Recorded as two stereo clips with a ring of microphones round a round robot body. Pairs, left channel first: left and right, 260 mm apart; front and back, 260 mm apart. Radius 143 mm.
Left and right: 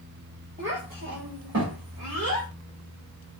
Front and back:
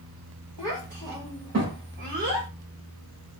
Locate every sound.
0.6 s a child speaking: 145° right, 2.5 m; by 2.5 s 120° right, 1.9 m